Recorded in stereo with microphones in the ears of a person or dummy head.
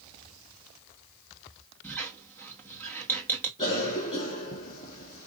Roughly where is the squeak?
Centre.